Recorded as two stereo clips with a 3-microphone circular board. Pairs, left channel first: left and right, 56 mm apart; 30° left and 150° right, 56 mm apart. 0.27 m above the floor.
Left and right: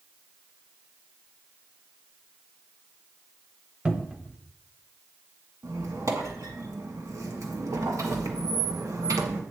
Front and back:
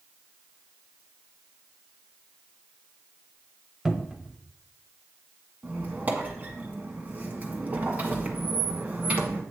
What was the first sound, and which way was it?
A cupboard door, 85° right.